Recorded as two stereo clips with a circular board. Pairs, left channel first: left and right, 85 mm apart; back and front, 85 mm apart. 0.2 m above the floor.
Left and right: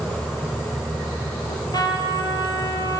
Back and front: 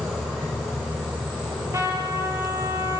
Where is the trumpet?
50° left, 4 m.